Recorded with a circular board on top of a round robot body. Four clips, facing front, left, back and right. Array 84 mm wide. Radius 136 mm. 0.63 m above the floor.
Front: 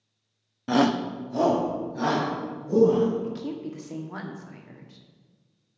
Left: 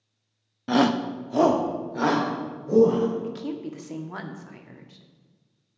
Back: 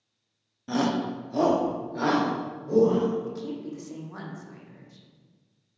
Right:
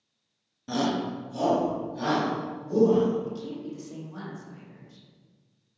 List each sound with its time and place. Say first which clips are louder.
0.7 s a shout: left 6 dB, front 4 dB; 50° left, 0.9 m; by 3.1 s 110° left, 3.5 m
3.2 s a woman speaking: left 3 dB, front 2 dB; 65° left, 1.3 m